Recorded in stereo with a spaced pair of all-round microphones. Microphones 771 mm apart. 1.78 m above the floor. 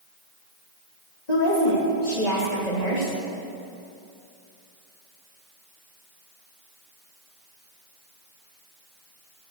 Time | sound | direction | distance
1.3 | a woman speaking | 55° left (ahead or behind) | 3.5 m